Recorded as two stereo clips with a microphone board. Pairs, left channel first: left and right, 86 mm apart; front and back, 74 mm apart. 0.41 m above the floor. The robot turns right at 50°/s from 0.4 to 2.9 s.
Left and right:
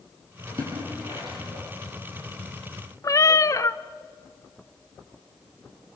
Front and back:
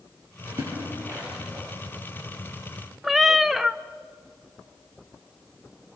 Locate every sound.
0.5 s a splash: 140° right, 9 m; by 1.6 s 80° right, 9 m
3.0 s a cat meowing: 95° left, 0.6 m